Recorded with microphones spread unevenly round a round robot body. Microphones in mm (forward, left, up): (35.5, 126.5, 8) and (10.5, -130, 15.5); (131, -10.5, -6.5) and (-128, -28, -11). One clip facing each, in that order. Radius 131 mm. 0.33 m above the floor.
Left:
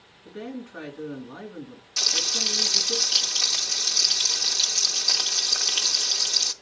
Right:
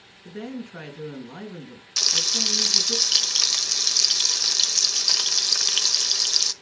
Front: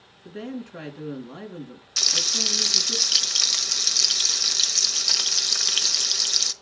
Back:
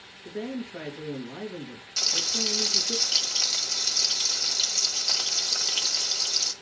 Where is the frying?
45° right, 1.1 m.